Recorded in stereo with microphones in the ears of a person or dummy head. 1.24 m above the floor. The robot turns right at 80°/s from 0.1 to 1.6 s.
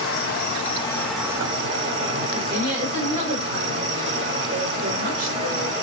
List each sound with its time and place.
0.0 s an insect: 95° left, 2.5 m; by 5.8 s 145° right, 2.5 m
2.3 s a woman speaking: 45° right (ahead or behind), 2 m